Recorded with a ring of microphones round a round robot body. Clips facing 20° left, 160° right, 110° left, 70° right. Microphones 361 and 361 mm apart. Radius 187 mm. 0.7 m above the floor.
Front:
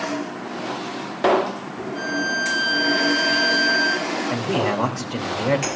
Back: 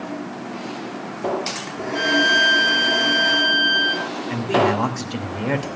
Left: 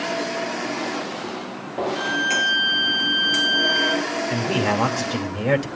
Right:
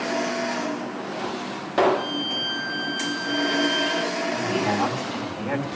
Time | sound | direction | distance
1.9 | a violin | straight behind | 6 m
4.3 | a man speaking | 125° left | 3 m